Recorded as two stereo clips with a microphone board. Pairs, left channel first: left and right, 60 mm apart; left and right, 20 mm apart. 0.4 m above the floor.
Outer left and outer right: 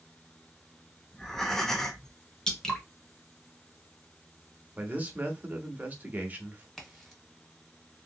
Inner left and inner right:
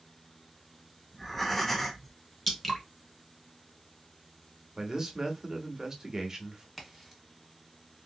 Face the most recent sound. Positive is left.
turn(degrees=5)  # may be behind; listen again after turning